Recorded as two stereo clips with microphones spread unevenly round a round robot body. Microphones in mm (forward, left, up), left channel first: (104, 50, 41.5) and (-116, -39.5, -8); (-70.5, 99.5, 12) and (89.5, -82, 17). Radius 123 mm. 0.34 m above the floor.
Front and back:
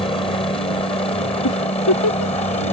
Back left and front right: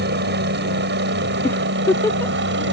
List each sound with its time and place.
0.0 s a helicopter: 50° right; by 2.7 s 45° right
1.4 s a giggle: 50° left